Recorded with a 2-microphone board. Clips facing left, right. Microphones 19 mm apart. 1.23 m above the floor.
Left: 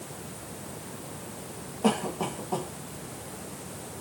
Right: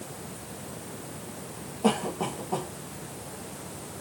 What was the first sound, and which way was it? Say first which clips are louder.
A cough: right 1 dB; 15° left (ahead or behind).